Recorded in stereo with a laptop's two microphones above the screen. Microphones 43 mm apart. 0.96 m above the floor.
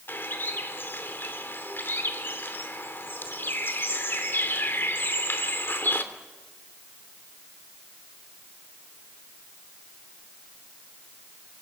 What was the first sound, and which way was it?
A bird, 55° left (ahead or behind).